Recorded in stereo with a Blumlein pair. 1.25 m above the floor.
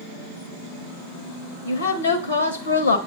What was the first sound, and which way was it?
A woman speaking, 65° left.